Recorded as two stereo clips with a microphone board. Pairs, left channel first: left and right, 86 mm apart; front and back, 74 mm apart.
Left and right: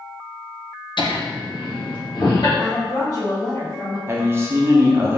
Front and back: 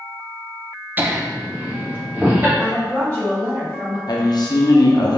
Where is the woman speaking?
135° left, 1.5 m.